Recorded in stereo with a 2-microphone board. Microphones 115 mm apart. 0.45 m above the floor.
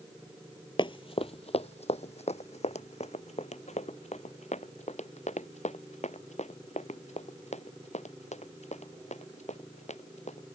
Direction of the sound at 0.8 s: 45° left (ahead or behind).